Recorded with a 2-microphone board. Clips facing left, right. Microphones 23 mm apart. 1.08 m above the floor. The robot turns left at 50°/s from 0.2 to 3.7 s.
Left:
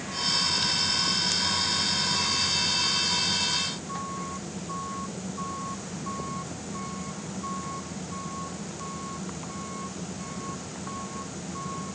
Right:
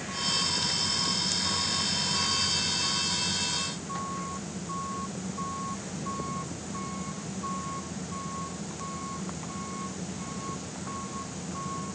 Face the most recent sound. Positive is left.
No sound to turn to.